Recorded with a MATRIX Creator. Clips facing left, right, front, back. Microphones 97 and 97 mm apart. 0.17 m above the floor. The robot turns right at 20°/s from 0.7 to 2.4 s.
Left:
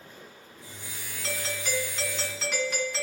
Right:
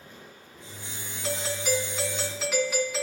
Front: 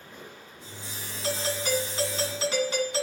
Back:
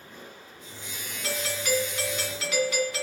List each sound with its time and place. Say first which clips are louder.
1.2 s a doorbell: right 5 dB, front 1 dB; 30° right, 2.0 m; by 3.0 s 5° right, 2.0 m